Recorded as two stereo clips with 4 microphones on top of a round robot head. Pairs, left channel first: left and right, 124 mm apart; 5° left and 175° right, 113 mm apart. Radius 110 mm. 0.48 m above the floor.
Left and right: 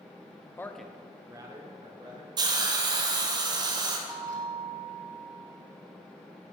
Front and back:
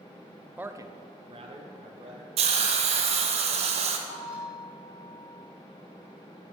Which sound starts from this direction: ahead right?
A bell, at 4.1 s.